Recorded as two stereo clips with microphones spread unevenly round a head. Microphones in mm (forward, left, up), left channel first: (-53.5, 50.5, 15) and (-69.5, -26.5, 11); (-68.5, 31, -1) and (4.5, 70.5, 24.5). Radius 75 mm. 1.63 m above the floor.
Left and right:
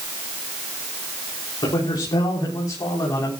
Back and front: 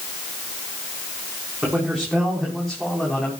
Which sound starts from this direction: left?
A man speaking, at 1.6 s.